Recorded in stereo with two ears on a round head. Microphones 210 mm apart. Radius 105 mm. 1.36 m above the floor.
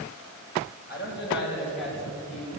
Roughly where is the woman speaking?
Left.